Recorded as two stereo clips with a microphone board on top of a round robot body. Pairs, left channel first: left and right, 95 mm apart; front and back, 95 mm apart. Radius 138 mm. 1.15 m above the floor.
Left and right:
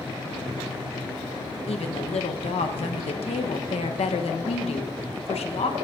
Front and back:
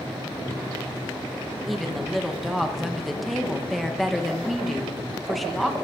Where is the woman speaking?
90° left, 0.9 m.